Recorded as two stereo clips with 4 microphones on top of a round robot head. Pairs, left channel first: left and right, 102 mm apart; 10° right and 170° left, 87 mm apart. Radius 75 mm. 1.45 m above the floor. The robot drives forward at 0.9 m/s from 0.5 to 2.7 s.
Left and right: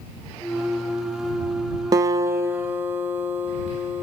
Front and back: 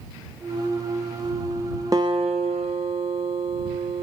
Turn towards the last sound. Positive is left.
turn(degrees=-160)